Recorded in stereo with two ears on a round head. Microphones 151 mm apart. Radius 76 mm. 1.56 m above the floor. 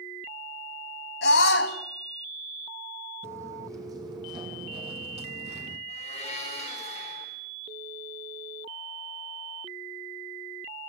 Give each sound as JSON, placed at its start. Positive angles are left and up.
{"t": 1.2, "sound": "a scream", "side_deg": 80, "distance_m": 3.5}
{"t": 3.2, "sound": "footsteps", "side_deg": -15, "distance_m": 3.0}
{"t": 5.9, "sound": "a blender", "side_deg": 35, "distance_m": 7.5}